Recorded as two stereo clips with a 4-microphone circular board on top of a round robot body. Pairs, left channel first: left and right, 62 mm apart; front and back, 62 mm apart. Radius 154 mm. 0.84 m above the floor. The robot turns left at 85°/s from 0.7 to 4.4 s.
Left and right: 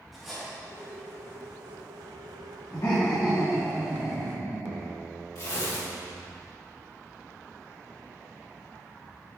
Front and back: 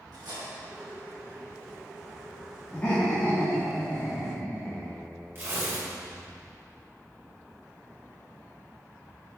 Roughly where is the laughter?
Left.